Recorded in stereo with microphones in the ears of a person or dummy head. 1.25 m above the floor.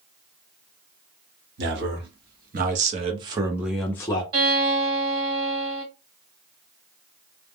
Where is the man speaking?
60° right (ahead or behind), 1.3 m; by 4.2 s 25° left (ahead or behind), 0.7 m.